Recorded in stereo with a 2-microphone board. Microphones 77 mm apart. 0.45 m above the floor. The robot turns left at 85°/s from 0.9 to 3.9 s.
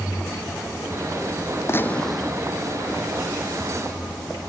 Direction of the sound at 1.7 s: 35° left.